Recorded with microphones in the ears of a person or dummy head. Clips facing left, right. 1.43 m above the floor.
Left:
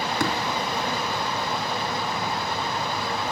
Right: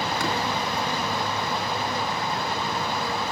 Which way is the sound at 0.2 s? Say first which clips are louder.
Left 4 dB; 85° left.